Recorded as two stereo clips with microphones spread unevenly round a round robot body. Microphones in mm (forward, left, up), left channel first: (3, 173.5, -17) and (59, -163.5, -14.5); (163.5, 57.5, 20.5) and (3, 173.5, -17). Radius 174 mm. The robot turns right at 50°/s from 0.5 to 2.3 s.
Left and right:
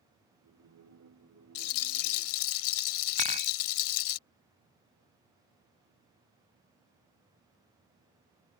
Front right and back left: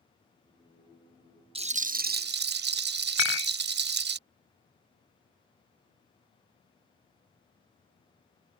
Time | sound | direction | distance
1.6 | a rattle | 85° left | ?
3.2 | dishes clattering | 10° right | ?